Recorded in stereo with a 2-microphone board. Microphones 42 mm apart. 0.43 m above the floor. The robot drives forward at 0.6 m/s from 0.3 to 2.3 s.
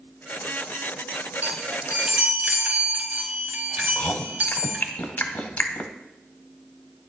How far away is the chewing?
About 0.9 m.